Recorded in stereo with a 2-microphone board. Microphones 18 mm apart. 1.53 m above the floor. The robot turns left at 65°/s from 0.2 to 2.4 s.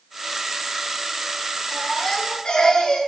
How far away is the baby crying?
About 7 m.